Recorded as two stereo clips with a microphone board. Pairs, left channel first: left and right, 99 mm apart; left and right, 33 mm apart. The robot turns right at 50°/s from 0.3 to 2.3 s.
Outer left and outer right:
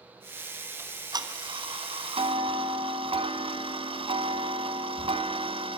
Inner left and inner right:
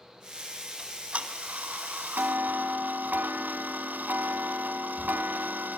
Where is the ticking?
155° right, 1.7 m; by 5.8 s 75° right, 1.7 m.